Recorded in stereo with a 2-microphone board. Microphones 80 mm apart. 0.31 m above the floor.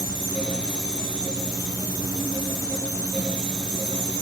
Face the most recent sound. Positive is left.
No sound to turn to.